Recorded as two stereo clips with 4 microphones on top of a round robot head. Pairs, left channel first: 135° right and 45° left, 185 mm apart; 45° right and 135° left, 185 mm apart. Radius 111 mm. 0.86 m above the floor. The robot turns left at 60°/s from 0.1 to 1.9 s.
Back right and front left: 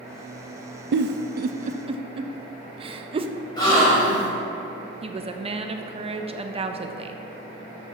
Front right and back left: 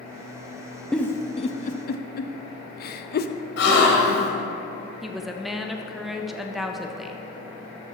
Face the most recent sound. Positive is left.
turn(degrees=50)